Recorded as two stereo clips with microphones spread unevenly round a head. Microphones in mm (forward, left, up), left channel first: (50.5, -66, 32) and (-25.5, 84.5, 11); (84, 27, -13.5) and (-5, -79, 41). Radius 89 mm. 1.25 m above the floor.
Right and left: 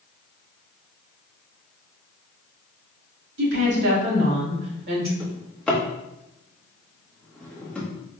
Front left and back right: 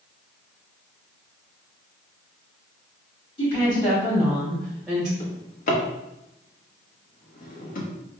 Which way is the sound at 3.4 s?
110° left.